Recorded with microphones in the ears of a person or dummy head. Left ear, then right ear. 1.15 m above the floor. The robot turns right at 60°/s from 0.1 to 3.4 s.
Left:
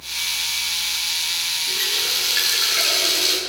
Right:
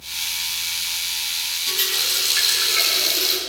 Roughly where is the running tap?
Behind right.